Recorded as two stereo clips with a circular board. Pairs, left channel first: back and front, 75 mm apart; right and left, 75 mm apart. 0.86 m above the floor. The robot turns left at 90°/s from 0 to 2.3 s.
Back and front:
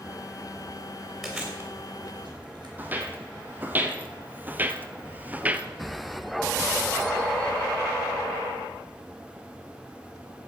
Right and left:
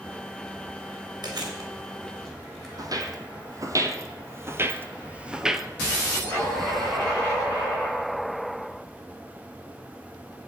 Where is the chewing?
100° left, 3.5 m; by 2.7 s straight ahead, 3.5 m.